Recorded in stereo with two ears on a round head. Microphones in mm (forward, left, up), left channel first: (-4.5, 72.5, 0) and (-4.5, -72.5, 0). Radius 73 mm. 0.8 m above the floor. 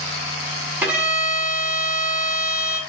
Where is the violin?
10° right (ahead or behind), 5 m.